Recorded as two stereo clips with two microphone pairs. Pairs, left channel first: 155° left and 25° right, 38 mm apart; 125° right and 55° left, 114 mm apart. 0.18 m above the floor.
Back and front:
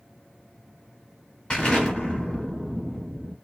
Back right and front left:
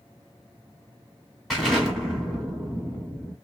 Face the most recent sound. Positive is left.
turn(degrees=145)